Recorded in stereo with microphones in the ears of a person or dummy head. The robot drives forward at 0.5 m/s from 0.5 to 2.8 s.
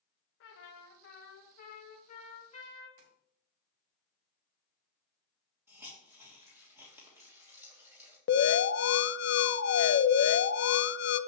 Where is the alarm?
60° left (ahead or behind), 0.6 m.